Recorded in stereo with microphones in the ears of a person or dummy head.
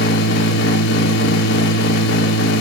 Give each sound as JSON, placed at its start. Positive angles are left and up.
{"t": 0.0, "sound": "a machine running", "side_deg": 75, "distance_m": 1.1}